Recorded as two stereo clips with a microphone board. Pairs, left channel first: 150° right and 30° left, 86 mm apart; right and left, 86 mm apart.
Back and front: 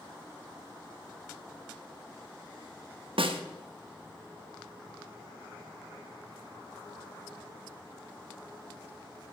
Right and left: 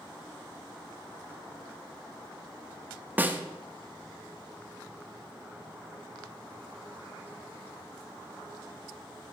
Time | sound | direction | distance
3.2 | a snare drum | 20° left | 0.8 m